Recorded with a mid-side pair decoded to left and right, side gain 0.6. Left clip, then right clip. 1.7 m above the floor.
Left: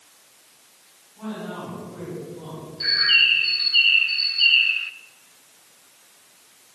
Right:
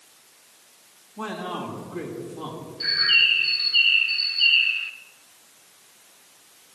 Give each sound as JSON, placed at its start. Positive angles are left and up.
{"t": 1.2, "sound": "a man speaking", "azimuth_deg": -55, "distance_m": 3.0}
{"t": 2.8, "sound": "a bird", "azimuth_deg": 10, "distance_m": 0.5}